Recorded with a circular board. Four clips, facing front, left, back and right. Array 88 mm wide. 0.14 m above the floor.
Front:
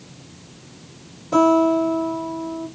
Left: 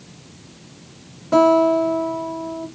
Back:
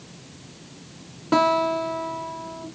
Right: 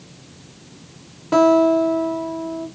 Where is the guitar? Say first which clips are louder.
Even, front 5 dB; 160° right, 2 m.